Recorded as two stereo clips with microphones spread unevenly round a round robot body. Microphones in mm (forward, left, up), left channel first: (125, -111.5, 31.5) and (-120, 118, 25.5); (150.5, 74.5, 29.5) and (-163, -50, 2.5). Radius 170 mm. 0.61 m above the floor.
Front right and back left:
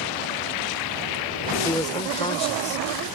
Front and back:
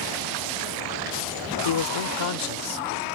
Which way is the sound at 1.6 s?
40° left.